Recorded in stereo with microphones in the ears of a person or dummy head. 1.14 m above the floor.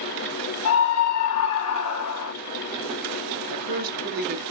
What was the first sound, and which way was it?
A scream, 75° left (ahead or behind).